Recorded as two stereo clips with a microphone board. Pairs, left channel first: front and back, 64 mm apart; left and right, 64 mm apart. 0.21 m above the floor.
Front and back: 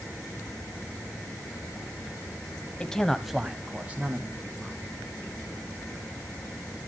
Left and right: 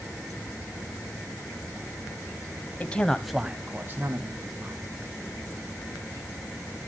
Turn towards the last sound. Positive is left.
turn(degrees=-125)